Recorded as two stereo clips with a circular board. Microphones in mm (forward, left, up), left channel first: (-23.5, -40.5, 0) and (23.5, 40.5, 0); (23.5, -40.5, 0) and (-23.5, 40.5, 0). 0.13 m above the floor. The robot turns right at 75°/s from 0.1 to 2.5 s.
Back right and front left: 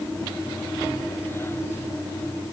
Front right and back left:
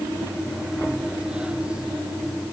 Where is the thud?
I don't hear a thud.